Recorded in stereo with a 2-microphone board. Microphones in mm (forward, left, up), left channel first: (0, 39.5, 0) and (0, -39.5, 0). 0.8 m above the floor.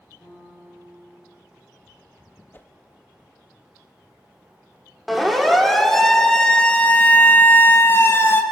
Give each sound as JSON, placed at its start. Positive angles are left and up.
{"t": 0.2, "sound": "a piano", "side_deg": 35, "distance_m": 8.5}
{"t": 2.5, "sound": "a whoosh", "side_deg": 25, "distance_m": 0.7}
{"t": 5.1, "sound": "a siren", "side_deg": 0, "distance_m": 3.5}